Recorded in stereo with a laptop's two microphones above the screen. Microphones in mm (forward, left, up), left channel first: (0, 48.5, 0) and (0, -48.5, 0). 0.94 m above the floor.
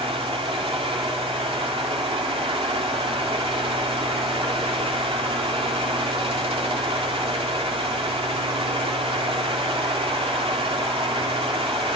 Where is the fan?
70° right (ahead or behind), 2.5 m.